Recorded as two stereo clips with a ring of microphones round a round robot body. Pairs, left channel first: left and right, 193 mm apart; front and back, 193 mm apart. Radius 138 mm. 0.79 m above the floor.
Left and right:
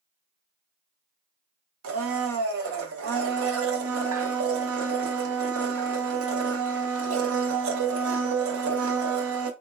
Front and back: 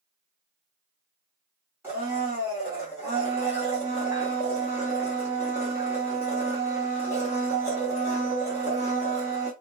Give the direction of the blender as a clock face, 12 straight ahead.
3 o'clock.